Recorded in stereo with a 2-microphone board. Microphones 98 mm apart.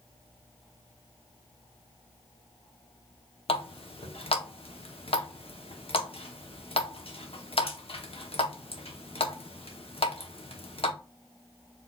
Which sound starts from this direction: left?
A running tap, at 3.5 s.